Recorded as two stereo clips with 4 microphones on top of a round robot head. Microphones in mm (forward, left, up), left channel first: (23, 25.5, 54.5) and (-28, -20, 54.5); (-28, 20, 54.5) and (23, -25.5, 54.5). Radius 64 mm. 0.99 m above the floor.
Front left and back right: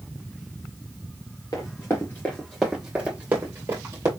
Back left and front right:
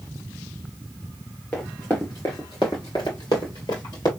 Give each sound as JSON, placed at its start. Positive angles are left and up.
{"t": 1.5, "sound": "running footsteps", "azimuth_deg": 70, "distance_m": 1.1}